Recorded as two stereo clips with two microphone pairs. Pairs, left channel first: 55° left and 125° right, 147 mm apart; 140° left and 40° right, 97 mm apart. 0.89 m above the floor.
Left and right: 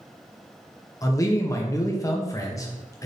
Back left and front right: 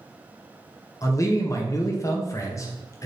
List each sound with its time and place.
1.0 s a man speaking: 110° left, 0.6 m